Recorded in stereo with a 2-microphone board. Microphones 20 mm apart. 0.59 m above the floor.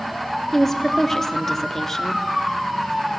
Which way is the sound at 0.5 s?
10° left (ahead or behind).